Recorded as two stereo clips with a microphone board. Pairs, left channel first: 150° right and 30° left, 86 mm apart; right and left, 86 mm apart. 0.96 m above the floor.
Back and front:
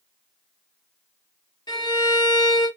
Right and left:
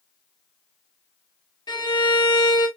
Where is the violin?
120° right, 2.5 m.